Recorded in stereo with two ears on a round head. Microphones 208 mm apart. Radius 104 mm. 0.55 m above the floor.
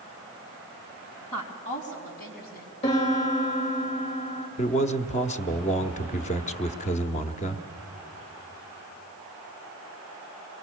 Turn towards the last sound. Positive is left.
turn(degrees=30)  # may be behind; listen again after turning